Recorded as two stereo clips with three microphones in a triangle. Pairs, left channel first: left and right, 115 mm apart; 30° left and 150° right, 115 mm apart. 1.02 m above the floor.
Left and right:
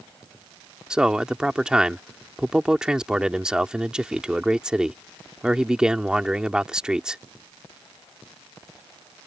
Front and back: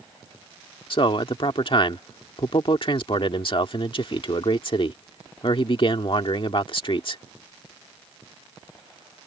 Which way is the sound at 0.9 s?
5° right.